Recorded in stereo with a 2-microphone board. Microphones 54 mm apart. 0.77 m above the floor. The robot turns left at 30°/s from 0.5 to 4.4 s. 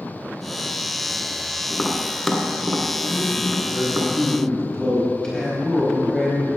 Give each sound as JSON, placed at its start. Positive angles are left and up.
{"t": 1.7, "sound": "tapping", "side_deg": 15, "distance_m": 1.5}
{"t": 3.1, "sound": "a man speaking", "azimuth_deg": -160, "distance_m": 4.0}